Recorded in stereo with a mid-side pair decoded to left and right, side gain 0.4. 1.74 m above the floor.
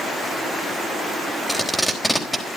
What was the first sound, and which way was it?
Tape being pulled, 5° left.